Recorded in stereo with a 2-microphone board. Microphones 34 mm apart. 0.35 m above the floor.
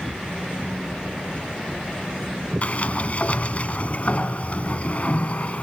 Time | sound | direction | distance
2.6 | a sliding door | 40° left (ahead or behind) | 1.7 m